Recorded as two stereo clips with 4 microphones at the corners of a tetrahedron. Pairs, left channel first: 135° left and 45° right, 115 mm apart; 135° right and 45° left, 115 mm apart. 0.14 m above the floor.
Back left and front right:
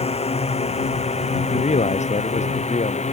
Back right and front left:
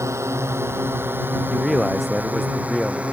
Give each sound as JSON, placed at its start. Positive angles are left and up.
{"t": 0.0, "sound": "a drone", "azimuth_deg": 110}
{"t": 1.5, "sound": "a man speaking", "azimuth_deg": 135}